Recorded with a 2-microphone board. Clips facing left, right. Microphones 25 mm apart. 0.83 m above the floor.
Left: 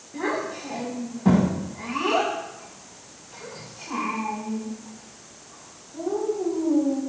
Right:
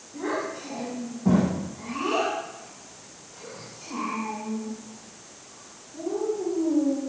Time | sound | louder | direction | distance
0.1 | a child speaking | left 2 dB | 80° left | 5.5 m